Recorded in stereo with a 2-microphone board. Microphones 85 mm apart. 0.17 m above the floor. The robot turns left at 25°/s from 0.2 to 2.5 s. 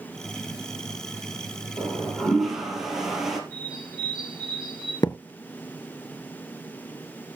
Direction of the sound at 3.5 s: 10° right (ahead or behind).